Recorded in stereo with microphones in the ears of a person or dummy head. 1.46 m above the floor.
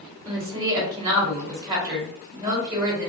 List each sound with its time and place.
0.2 s a woman speaking: 10° right (ahead or behind), 1.8 m